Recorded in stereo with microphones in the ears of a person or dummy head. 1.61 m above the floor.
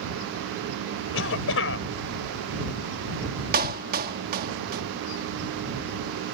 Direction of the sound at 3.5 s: 50° right (ahead or behind).